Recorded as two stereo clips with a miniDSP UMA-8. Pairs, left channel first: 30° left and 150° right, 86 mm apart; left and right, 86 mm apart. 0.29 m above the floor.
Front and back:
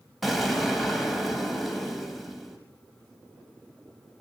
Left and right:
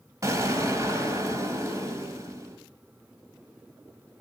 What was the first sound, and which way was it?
An explosion, 60° right.